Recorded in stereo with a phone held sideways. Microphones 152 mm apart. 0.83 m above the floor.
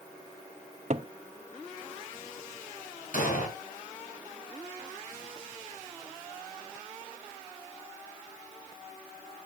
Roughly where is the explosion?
Left.